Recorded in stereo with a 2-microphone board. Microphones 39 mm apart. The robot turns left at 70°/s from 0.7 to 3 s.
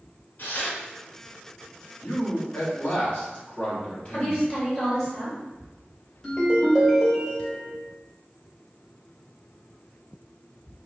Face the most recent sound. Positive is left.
turn(degrees=20)  # may be behind; listen again after turning